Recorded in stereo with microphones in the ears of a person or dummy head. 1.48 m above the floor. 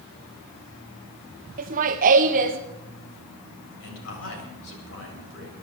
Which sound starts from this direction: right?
Laughter, at 1.6 s.